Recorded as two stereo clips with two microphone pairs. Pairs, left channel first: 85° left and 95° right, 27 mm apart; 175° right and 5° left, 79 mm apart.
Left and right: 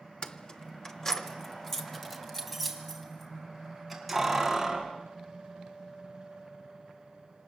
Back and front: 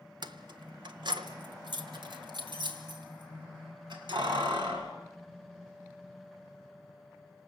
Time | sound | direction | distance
0.2 | keys jangling | 30° left | 1.2 m